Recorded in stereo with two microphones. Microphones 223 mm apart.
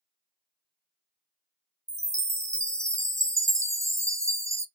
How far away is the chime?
About 0.5 m.